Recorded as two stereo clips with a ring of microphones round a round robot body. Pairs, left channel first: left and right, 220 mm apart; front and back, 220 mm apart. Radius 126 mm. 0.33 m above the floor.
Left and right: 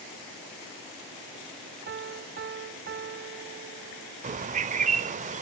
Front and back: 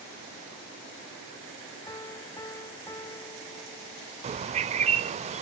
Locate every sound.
1.9 s a piano: 70° right, 0.5 m
4.2 s a bird: 130° right, 0.5 m